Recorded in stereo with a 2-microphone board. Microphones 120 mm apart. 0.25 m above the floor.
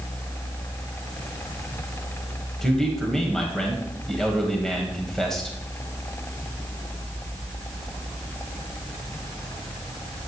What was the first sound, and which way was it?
A man speaking, 5° left (ahead or behind).